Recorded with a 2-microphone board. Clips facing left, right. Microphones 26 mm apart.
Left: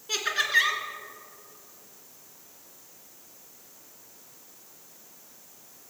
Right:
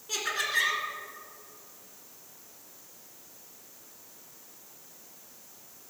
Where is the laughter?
35° left (ahead or behind), 2 m.